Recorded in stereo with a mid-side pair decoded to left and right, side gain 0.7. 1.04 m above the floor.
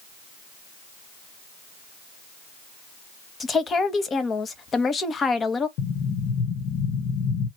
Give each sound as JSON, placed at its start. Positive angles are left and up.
{"t": 3.4, "sound": "a woman speaking", "azimuth_deg": 25, "distance_m": 1.0}
{"t": 5.8, "sound": "an explosion", "azimuth_deg": 60, "distance_m": 1.0}